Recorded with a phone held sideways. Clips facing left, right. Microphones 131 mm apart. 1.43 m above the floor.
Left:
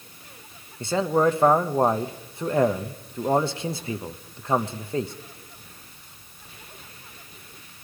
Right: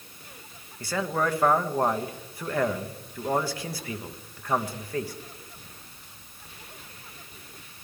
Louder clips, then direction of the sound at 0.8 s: Left 6 dB; 25° left (ahead or behind).